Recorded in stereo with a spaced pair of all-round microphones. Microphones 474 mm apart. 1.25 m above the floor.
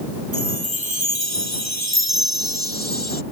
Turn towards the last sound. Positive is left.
turn(degrees=-75)  # may be behind; listen again after turning